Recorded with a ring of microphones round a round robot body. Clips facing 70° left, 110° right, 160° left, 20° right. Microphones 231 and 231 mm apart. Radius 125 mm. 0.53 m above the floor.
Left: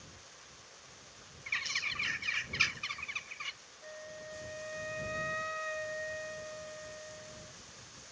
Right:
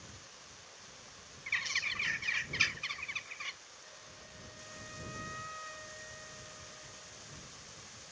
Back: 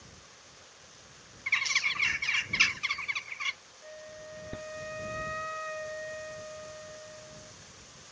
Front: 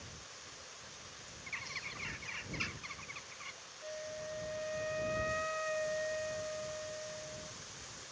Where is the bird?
150° left.